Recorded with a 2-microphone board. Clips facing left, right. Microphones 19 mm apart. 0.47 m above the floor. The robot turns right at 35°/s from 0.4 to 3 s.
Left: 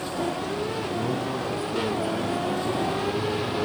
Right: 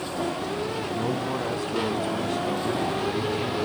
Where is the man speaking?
170° right, 3.5 m; by 3.7 s 100° right, 3.5 m.